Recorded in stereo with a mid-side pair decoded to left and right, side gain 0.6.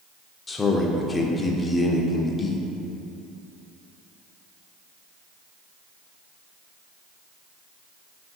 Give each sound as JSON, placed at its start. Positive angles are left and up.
{"t": 0.5, "sound": "a man speaking", "azimuth_deg": 25, "distance_m": 0.6}